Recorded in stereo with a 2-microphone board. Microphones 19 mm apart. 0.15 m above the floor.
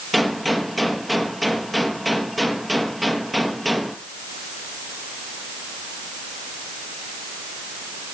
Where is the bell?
I don't hear a bell.